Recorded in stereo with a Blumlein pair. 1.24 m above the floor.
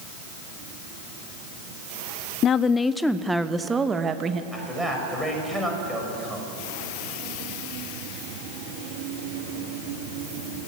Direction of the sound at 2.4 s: 30° left.